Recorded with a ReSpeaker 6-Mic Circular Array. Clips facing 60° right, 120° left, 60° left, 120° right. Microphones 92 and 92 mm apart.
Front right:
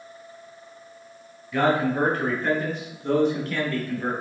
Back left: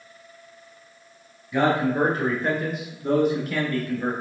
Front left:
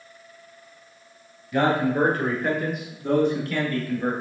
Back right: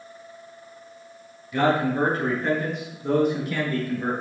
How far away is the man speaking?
About 1.2 m.